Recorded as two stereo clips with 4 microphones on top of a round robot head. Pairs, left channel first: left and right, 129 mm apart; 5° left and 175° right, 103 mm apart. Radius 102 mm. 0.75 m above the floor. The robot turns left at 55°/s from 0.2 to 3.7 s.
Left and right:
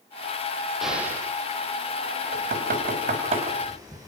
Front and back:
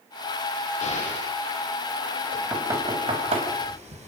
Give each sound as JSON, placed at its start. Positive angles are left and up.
{"t": 0.8, "sound": "an explosion", "azimuth_deg": 0, "distance_m": 8.0}
{"t": 2.3, "sound": "knocking", "azimuth_deg": -80, "distance_m": 4.5}